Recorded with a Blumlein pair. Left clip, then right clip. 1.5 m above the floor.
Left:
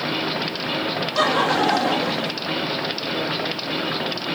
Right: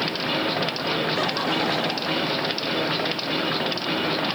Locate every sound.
1.1 s laughter: 65° left